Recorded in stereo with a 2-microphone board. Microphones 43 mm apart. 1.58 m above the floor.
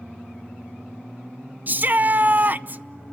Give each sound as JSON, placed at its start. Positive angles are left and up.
{"t": 1.7, "sound": "a shout", "side_deg": -40, "distance_m": 0.7}